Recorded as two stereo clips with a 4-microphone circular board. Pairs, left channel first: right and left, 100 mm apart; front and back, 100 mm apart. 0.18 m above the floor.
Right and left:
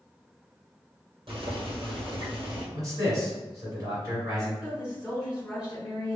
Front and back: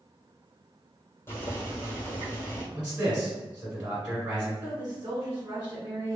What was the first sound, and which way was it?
Boiling, 65° left.